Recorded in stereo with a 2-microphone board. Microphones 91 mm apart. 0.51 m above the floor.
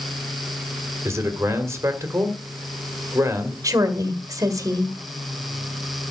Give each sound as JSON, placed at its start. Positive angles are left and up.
{"t": 1.1, "sound": "a man speaking", "side_deg": -30, "distance_m": 2.0}
{"t": 3.6, "sound": "a woman speaking", "side_deg": -35, "distance_m": 1.8}